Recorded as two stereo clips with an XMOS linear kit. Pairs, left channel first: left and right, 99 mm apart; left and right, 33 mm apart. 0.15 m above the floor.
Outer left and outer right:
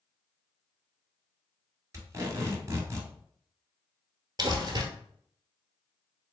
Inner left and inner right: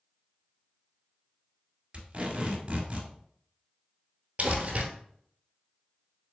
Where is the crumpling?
45° right (ahead or behind), 1.0 m.